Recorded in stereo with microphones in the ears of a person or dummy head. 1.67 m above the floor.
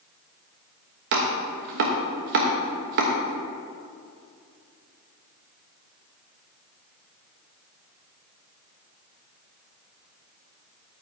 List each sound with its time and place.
1.1 s chopping: 45° right (ahead or behind), 1.2 m